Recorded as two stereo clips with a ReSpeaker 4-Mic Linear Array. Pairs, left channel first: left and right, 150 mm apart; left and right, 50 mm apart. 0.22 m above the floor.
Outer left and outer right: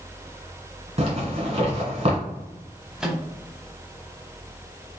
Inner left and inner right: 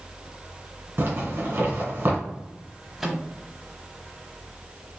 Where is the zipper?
45° right (ahead or behind), 1.7 m.